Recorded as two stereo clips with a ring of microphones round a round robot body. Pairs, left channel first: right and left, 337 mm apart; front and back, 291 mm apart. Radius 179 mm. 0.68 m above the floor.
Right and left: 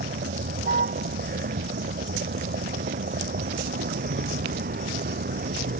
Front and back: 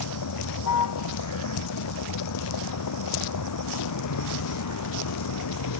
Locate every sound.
0.0 s a vehicle: 25° left